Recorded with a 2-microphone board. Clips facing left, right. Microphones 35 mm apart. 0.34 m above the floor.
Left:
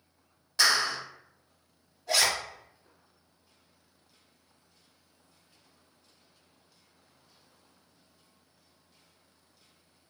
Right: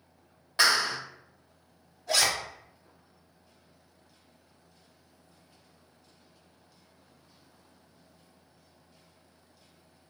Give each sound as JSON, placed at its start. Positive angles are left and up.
{"t": 0.6, "sound": "a clap", "side_deg": -25, "distance_m": 1.0}
{"t": 2.1, "sound": "a zipper", "side_deg": 5, "distance_m": 1.6}